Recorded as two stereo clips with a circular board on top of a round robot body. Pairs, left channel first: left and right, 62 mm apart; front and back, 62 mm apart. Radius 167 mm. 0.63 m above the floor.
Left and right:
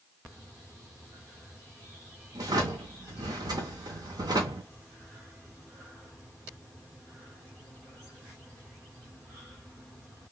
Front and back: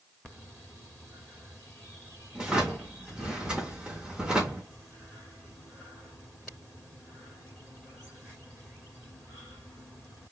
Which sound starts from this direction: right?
A drawer, at 2.4 s.